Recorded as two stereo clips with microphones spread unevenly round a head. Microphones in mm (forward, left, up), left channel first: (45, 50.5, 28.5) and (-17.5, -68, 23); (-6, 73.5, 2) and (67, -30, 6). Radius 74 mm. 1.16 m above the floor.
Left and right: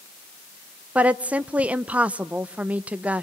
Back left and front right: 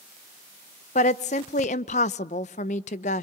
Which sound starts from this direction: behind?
A woman speaking, at 0.9 s.